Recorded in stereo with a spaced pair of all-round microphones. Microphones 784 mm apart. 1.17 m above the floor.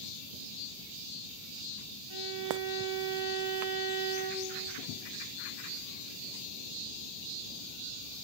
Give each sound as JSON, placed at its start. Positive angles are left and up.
{"t": 2.1, "sound": "a violin", "side_deg": -30, "distance_m": 3.0}